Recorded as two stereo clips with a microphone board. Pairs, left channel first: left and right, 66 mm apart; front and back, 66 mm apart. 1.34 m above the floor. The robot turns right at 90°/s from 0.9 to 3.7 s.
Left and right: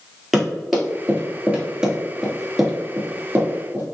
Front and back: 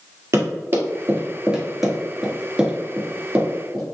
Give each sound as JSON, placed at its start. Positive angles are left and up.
{"t": 0.3, "sound": "running footsteps", "azimuth_deg": -175, "distance_m": 1.9}